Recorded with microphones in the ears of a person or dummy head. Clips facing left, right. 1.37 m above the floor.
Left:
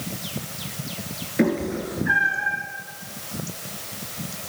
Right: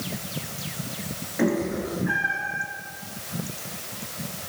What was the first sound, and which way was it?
A cat meowing, 35° left (ahead or behind).